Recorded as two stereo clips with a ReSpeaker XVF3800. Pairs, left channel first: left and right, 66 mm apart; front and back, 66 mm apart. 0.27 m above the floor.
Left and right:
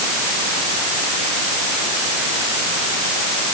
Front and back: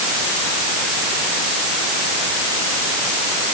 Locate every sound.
Only background noise.